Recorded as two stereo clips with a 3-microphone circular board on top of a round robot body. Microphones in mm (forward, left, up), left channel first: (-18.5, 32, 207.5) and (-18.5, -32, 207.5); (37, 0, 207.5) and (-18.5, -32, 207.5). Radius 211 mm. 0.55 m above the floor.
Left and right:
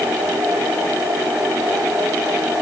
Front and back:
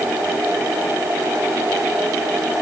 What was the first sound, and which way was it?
Only background noise.